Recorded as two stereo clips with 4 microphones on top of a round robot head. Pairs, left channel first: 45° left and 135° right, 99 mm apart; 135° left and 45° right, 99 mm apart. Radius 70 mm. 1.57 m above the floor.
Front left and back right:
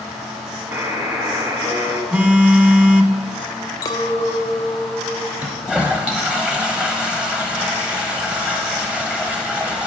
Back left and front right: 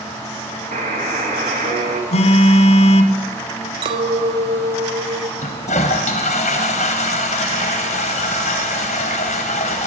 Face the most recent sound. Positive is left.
turn(degrees=145)